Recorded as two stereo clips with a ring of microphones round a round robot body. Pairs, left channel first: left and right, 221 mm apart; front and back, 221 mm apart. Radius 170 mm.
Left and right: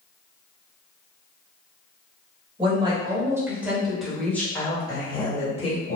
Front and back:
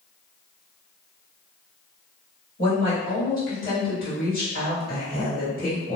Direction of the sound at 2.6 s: 35° right.